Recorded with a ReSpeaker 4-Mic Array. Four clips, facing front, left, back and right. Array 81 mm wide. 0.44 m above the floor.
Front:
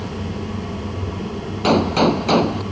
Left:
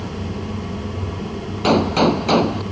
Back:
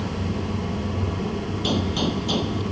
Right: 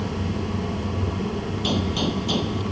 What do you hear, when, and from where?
1.6 s a gunshot: 45° left